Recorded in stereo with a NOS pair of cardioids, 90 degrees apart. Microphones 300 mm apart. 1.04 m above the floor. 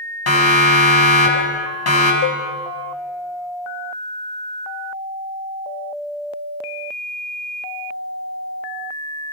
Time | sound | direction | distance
0.3 | a siren | 55° left | 6 m
2.2 | a cowbell | 50° left | 1.2 m